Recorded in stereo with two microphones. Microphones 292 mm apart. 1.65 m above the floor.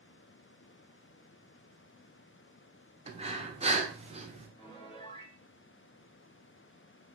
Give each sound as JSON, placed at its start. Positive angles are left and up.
{"t": 3.1, "sound": "breathing", "side_deg": -20, "distance_m": 0.7}
{"t": 4.6, "sound": "a piano", "side_deg": 20, "distance_m": 0.9}